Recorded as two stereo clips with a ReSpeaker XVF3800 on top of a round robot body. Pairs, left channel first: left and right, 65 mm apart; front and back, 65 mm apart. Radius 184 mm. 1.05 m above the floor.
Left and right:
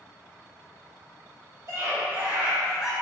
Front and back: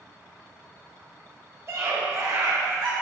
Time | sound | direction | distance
1.7 | a scream | 135° right | 2 m